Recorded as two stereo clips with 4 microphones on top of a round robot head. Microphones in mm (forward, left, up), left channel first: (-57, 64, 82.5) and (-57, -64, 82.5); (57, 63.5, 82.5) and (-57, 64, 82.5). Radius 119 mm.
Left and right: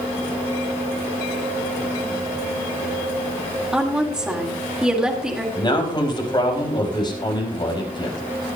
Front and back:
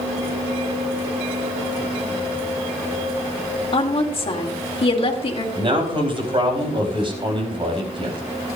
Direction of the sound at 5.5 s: 140° left.